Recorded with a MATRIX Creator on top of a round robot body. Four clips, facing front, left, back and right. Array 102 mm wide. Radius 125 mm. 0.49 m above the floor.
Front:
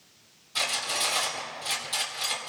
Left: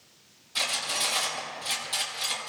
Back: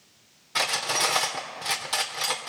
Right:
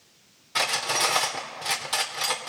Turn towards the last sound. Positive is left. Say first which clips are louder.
# right 7 dB, back 5 dB
turn(degrees=-135)